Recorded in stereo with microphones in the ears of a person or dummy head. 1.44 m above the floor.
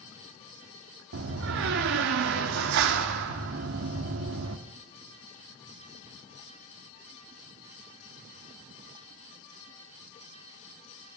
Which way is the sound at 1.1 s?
70° right (ahead or behind).